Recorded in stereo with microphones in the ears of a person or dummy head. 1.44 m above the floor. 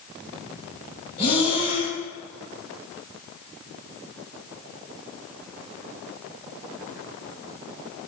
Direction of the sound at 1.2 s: 30° left (ahead or behind).